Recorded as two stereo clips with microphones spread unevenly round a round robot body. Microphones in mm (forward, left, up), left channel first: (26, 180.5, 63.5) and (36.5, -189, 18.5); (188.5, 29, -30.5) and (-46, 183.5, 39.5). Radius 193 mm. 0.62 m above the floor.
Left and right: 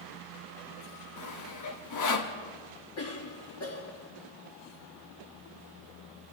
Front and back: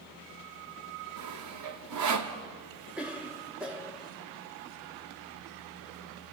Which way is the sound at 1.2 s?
130° left.